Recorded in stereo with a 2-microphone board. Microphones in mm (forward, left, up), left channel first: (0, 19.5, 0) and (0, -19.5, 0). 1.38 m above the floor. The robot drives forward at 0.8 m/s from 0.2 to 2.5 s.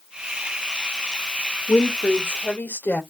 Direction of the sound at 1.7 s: 75° left (ahead or behind).